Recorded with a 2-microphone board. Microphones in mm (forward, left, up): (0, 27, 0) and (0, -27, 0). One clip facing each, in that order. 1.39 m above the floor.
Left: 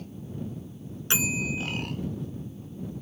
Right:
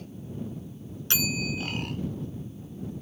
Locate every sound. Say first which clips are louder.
1.1 s a bell: left 2 dB; 20° left (ahead or behind)